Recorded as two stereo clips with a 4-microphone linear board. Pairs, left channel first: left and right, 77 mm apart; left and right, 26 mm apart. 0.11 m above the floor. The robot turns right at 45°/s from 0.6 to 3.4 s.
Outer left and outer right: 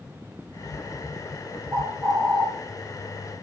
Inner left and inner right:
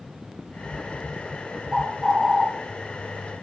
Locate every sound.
1.7 s a bird: 35° right, 3.5 m; by 2.5 s straight ahead, 3.5 m